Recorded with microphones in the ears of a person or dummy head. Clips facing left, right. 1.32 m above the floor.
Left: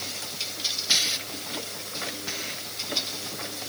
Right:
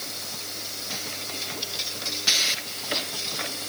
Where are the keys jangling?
I don't hear keys jangling.